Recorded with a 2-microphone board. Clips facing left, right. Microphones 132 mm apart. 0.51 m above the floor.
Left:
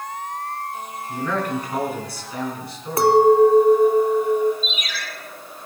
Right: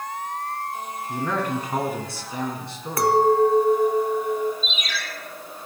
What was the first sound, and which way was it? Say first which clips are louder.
A man speaking: left 1 dB; 25° right (ahead or behind).